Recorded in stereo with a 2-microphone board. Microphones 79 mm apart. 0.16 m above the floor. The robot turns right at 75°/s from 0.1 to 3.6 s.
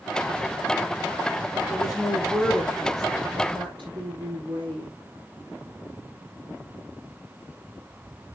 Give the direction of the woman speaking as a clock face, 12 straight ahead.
8 o'clock.